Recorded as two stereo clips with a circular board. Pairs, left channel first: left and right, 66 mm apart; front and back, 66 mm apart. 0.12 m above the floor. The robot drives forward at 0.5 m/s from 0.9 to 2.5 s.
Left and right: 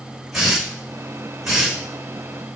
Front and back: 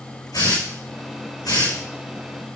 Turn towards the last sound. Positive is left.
turn(degrees=-5)